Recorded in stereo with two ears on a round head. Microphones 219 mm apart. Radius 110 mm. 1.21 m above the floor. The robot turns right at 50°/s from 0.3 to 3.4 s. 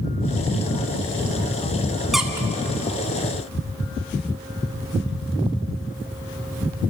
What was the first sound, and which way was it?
A squeak, centre (ahead or behind).